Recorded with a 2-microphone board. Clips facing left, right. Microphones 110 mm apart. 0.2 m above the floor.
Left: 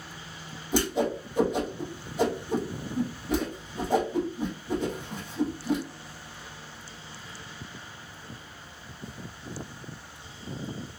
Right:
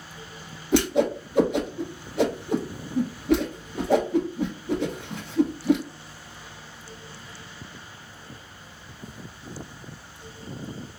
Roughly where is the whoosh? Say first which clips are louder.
Right 5 dB; right.